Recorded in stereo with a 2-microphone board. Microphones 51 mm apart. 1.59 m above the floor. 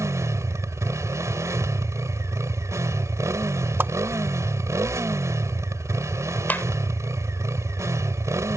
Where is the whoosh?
45° right (ahead or behind).